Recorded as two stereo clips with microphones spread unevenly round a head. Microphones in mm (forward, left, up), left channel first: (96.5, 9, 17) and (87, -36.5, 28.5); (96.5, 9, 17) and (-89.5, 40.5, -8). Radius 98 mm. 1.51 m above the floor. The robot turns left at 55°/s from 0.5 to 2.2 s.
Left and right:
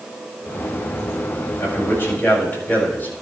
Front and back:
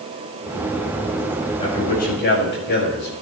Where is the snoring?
I don't hear snoring.